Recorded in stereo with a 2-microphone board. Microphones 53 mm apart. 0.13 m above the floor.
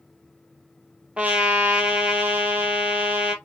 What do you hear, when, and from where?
1.2 s a trumpet: 25° right (ahead or behind), 1.2 m